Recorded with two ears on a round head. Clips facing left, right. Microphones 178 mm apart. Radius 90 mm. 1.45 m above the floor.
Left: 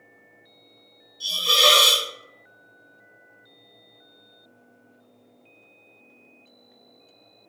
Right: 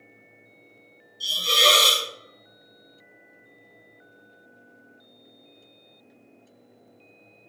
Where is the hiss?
Centre (ahead or behind), 1.3 m.